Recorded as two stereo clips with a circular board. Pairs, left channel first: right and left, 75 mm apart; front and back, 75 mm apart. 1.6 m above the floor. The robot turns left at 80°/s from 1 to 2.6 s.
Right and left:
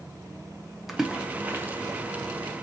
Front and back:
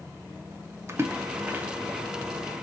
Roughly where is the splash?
Behind.